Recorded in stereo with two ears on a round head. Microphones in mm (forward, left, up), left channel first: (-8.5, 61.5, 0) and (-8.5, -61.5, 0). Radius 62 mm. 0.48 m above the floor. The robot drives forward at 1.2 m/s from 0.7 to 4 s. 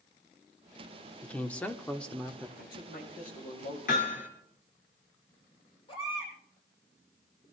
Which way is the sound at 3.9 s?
70° left (ahead or behind).